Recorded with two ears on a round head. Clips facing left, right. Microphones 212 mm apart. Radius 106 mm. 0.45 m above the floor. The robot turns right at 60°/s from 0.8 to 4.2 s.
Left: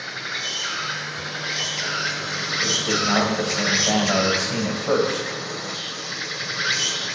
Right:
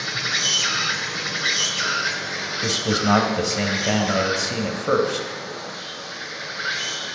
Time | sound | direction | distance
0.0 | an insect | 70° right | 1.7 m
2.6 | a man speaking | 120° right | 2 m